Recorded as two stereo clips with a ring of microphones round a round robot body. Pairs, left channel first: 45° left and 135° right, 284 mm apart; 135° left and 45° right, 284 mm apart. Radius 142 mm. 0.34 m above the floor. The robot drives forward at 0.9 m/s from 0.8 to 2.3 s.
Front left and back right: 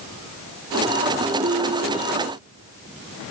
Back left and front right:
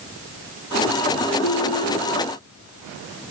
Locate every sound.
1.4 s a ringtone: 160° left, 5.5 m; by 2.1 s 165° left, 6 m